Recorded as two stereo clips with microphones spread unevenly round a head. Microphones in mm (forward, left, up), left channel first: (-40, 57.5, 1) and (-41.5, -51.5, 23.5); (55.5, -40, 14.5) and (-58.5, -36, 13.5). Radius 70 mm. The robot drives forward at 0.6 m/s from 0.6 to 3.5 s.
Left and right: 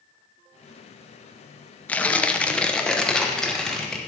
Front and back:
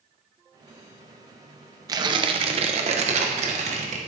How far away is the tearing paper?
About 0.7 m.